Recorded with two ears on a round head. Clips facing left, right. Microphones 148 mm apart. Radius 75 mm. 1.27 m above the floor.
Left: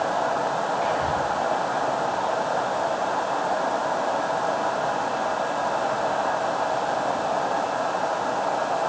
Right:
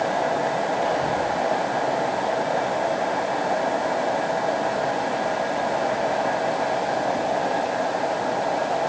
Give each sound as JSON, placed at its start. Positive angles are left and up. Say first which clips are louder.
{"t": 0.8, "sound": "whispering", "louder": "right 1 dB", "side_deg": 5, "distance_m": 2.5}